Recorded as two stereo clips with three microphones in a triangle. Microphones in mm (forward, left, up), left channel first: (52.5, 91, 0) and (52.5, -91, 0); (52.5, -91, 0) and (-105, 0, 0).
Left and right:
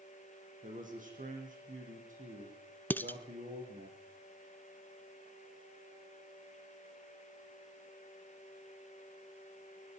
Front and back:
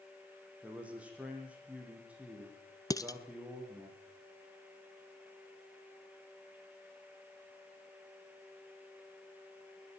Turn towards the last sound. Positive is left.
turn(degrees=20)